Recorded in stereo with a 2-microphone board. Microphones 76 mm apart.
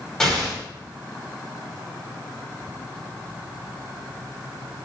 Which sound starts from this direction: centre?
An explosion, at 0.2 s.